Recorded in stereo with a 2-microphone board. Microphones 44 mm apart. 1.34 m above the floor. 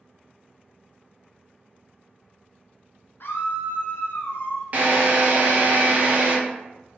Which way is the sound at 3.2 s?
60° left (ahead or behind).